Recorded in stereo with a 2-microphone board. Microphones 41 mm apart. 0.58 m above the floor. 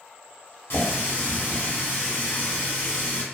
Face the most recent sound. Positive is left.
turn(degrees=60)  # may be behind; listen again after turning